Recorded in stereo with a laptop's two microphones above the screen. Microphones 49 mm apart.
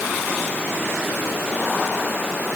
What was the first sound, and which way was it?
Only background noise.